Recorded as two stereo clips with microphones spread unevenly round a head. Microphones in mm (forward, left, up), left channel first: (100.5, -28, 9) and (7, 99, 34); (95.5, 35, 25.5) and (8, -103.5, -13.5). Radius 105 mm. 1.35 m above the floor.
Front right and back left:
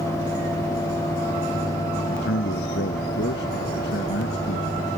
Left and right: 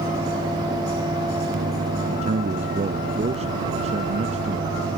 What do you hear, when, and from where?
2.1 s a man speaking: 75° right